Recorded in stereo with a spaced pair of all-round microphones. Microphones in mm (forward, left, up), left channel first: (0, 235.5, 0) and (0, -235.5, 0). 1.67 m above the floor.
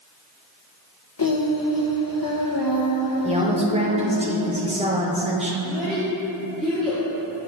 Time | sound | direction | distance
1.2 | singing | 45° left (ahead or behind) | 1.1 m
3.2 | a woman speaking | 15° right (ahead or behind) | 1.2 m
5.6 | a child speaking | centre (ahead or behind) | 2.5 m